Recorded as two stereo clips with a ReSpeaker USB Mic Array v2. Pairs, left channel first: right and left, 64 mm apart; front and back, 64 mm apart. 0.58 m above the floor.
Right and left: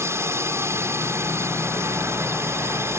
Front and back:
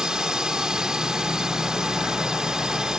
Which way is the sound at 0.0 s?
105° left.